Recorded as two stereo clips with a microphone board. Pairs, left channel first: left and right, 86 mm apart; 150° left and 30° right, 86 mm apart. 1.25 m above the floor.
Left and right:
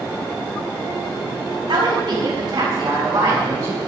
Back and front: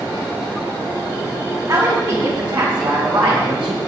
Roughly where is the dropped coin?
No dropped coin in this recording.